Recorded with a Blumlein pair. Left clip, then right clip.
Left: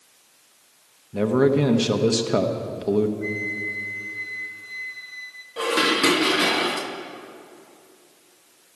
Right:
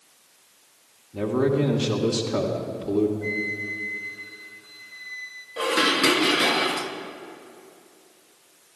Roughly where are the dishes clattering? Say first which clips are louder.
Left 1 dB; ahead.